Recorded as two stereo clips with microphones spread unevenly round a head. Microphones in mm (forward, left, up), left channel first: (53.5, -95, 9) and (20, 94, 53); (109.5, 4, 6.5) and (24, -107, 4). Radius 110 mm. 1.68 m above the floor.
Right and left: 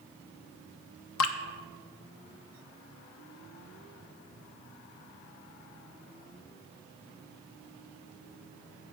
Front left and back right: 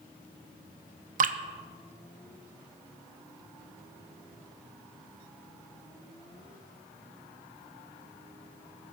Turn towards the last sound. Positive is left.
turn(degrees=-110)